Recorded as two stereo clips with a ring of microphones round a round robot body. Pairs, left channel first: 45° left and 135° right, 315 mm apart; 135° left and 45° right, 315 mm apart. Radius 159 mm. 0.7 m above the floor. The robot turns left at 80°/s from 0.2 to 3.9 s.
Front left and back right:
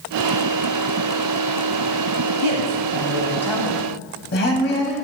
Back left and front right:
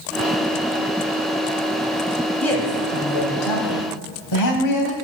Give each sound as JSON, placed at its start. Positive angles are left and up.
{"t": 2.4, "sound": "a woman speaking", "azimuth_deg": -135, "distance_m": 3.5}